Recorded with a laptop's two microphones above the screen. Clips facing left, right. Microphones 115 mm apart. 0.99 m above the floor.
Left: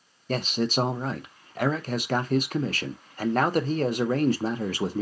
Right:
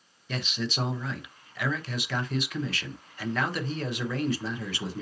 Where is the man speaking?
45° left (ahead or behind), 0.6 m.